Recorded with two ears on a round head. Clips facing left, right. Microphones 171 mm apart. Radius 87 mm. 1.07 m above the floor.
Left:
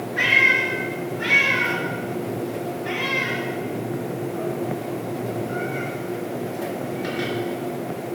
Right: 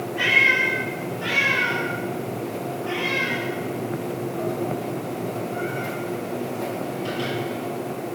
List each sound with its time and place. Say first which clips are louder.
0.2 s a cat meowing: even; 70° left (ahead or behind), 4 m